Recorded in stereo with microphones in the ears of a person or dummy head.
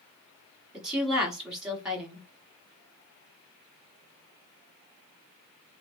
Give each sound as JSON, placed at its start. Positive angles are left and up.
{"t": 0.7, "sound": "a woman speaking", "side_deg": -10, "distance_m": 1.1}